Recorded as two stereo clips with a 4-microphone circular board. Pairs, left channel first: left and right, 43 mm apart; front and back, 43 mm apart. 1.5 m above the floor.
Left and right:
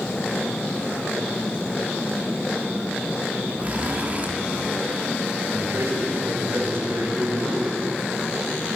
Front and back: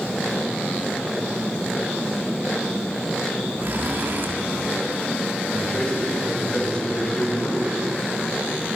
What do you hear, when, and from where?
3.6 s a zipper: 145° right, 3 m
5.5 s a man speaking: 70° right, 6 m